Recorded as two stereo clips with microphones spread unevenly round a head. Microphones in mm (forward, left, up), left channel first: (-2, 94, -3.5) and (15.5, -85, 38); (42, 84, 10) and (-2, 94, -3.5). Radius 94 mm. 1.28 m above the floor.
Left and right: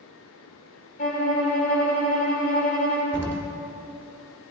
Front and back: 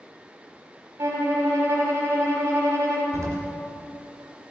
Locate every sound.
1.0 s a violin: 145° left, 3 m
3.1 s an explosion: 155° right, 1.8 m